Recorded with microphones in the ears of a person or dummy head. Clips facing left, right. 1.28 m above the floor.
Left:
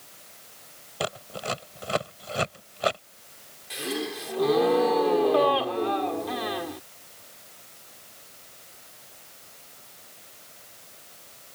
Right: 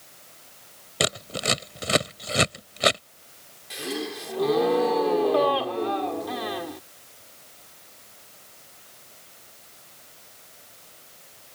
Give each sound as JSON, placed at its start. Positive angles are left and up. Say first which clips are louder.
{"t": 1.0, "sound": "scissors", "louder": "right 4 dB", "side_deg": -30}
{"t": 3.7, "sound": "a gasp", "louder": "even", "side_deg": 0}